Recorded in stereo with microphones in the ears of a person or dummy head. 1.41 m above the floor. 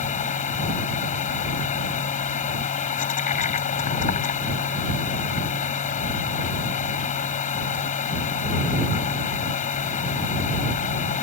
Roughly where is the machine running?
Left.